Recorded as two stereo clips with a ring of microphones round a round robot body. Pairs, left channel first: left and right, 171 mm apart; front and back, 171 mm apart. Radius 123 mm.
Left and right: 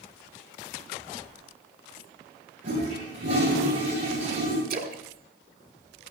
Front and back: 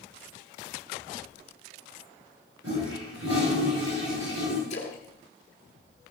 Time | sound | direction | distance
2.6 | a toilet flushing | 140° right | 6.5 m
4.7 | a splash | 60° right | 1.3 m